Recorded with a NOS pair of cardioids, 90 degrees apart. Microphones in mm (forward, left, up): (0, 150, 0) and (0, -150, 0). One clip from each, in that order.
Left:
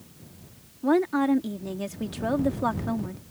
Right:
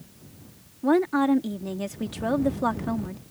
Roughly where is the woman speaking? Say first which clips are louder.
Right 1 dB; ahead.